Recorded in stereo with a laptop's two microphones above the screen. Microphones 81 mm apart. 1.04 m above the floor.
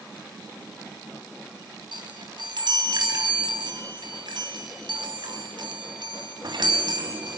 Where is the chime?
75° right (ahead or behind), 3 m.